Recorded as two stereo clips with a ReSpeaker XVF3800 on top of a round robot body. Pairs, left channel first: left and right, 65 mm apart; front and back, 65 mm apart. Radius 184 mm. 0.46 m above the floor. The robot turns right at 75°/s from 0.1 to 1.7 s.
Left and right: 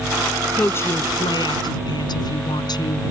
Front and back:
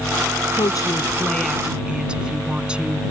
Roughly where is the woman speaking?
Ahead.